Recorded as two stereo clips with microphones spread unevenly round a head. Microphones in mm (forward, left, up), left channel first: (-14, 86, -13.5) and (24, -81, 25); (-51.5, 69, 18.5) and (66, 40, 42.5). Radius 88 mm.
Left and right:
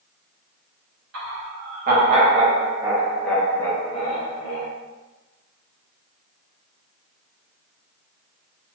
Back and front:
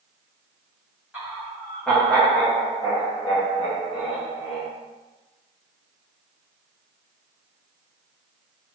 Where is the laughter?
105° right, 1.2 m; by 4.7 s 140° left, 1.4 m.